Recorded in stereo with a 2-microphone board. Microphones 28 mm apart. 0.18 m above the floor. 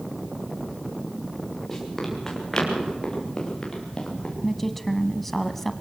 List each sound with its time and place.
1.7 s running footsteps: 10° left (ahead or behind), 7 m; by 4.3 s 30° left (ahead or behind), 7 m
4.4 s a woman speaking: 10° left (ahead or behind), 1.0 m